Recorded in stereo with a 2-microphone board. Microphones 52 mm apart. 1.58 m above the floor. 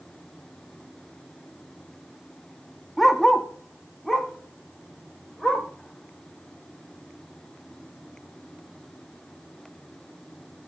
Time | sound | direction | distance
3.0 | a dog barking | 5° left (ahead or behind) | 1.0 m